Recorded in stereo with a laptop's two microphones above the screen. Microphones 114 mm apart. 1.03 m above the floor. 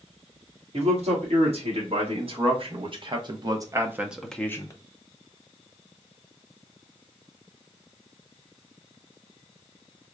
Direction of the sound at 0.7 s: 65° right (ahead or behind).